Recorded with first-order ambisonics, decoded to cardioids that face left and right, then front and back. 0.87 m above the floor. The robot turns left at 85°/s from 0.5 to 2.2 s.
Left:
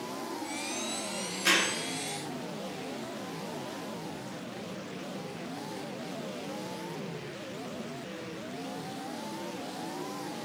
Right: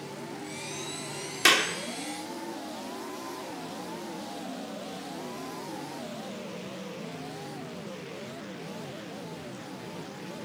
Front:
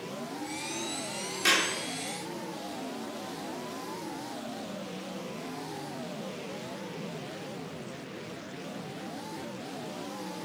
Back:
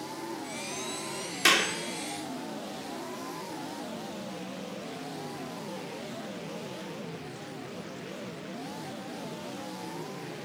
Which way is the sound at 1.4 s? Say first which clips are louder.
Right 4 dB, back 2 dB; 110° right.